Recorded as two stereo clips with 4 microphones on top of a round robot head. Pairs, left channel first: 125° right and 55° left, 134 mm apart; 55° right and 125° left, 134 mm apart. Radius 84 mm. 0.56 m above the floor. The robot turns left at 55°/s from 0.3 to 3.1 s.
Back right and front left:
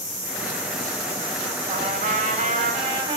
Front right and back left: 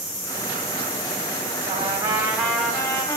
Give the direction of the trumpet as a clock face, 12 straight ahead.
9 o'clock.